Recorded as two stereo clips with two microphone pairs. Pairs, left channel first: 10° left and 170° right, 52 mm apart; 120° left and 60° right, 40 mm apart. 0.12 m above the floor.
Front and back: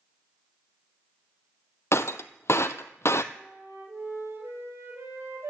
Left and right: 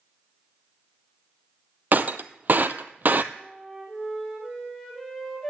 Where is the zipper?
No zipper in this recording.